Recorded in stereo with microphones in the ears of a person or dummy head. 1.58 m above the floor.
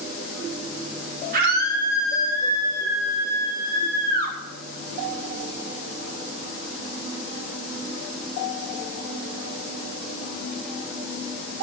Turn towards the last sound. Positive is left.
turn(degrees=-55)  # may be behind; listen again after turning